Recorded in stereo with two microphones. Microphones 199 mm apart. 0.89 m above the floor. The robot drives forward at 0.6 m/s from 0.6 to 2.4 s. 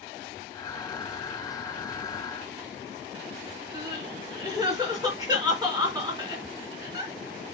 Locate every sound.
3.7 s crying: 20° right (ahead or behind), 3.5 m